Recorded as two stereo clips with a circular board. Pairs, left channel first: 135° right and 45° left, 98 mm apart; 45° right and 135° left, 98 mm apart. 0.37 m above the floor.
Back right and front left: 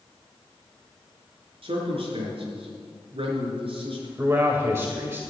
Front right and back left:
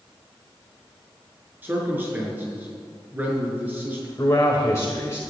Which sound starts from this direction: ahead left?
A man speaking, at 1.6 s.